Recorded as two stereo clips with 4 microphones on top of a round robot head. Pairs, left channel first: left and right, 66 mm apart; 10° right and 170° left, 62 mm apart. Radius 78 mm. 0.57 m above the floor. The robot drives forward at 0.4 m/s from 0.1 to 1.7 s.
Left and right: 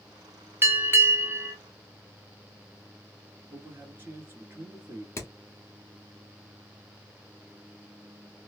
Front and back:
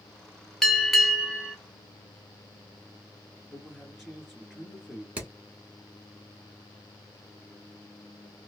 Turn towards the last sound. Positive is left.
turn(degrees=120)